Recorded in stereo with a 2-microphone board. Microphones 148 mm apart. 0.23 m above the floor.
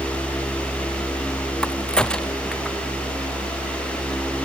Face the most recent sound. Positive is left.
turn(degrees=5)  # may be behind; listen again after turning